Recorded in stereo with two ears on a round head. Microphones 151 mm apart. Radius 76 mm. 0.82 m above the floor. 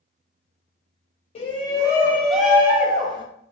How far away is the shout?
About 1.1 m.